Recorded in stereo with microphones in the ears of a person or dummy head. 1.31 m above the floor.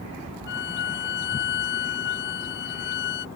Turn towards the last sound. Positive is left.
turn(degrees=55)  # may be behind; listen again after turning